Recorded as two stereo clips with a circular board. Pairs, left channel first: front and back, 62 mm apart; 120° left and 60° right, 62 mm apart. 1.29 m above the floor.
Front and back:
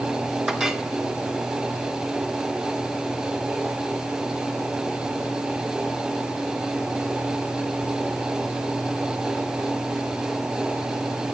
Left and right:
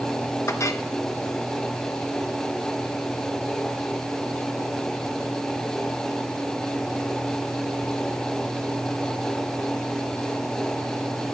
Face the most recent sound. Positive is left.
turn(degrees=100)